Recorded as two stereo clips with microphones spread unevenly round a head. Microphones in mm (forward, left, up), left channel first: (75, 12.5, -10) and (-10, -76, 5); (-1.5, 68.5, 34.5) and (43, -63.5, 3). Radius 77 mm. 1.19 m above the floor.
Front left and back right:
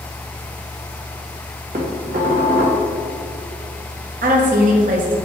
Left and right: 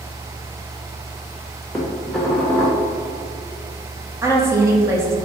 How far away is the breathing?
No breathing in this recording.